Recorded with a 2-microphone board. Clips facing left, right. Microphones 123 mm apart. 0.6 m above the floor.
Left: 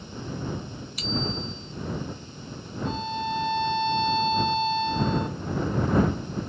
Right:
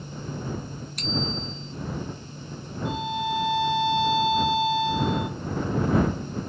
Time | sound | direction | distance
1.0 | a bicycle bell | 5° left (ahead or behind) | ?
2.9 | a violin | 10° right (ahead or behind) | ?